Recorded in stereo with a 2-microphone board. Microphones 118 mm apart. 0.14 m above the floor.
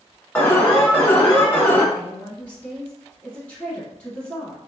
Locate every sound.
0.3 s an alarm: 15° left (ahead or behind), 0.9 m
1.9 s a woman speaking: 15° left (ahead or behind), 1.1 m